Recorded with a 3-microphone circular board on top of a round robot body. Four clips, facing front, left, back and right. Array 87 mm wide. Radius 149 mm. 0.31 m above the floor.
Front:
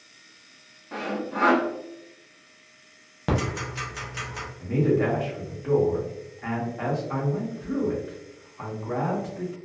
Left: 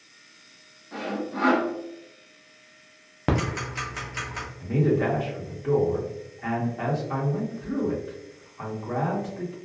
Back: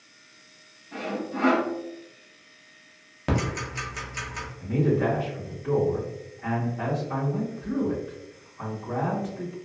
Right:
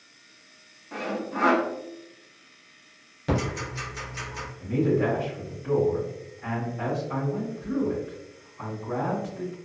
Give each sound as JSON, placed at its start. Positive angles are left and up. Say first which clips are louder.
{"t": 0.9, "sound": "sawing", "louder": "even, front 1 dB", "azimuth_deg": -25, "distance_m": 0.7}
{"t": 3.3, "sound": "ticking", "louder": "left 1 dB, front 1 dB", "azimuth_deg": 80, "distance_m": 0.5}
{"t": 4.6, "sound": "a man speaking", "louder": "even, front 1 dB", "azimuth_deg": 45, "distance_m": 1.5}